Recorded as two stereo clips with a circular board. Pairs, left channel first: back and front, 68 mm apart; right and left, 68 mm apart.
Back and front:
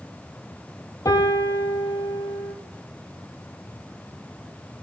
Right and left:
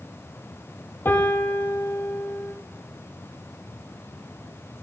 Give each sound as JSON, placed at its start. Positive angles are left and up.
{"t": 1.1, "sound": "a piano", "azimuth_deg": -145, "distance_m": 1.4}